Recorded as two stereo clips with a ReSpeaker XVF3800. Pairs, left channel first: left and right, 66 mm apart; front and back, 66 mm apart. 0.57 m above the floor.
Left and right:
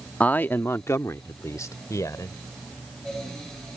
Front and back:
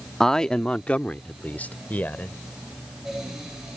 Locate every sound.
0.2 s a man speaking: 75° left; by 2.4 s 60° left